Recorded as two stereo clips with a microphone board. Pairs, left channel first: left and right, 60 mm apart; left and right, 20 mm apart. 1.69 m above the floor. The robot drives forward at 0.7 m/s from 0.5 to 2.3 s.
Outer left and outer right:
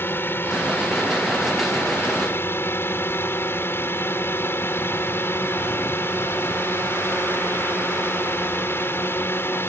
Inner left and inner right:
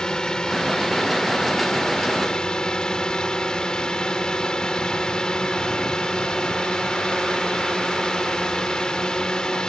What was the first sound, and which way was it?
A drone, 35° left (ahead or behind).